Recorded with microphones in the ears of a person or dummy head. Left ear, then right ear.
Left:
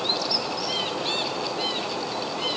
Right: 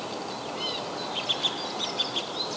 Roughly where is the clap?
I don't hear a clap.